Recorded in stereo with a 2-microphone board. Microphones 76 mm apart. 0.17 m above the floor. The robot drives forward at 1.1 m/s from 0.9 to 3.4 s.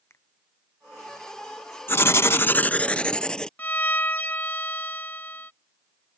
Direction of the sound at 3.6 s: 25° left (ahead or behind).